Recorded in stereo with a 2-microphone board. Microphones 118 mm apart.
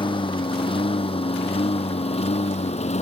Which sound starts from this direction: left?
A lawn mower, at 0.0 s.